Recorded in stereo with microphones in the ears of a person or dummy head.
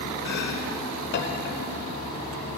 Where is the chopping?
55° left (ahead or behind), 1.1 m.